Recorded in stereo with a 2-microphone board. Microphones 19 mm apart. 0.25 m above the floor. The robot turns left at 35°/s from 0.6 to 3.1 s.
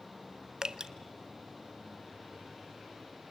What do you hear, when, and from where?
0.6 s dripping: 35° right (ahead or behind), 0.7 m; by 0.9 s 45° right (ahead or behind), 0.7 m